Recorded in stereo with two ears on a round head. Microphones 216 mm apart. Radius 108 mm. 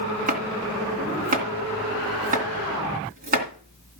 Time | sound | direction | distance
0.3 | chopping | 35° right (ahead or behind) | 2.5 m